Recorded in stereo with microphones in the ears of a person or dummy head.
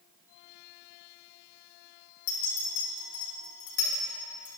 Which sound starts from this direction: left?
A clink, at 2.3 s.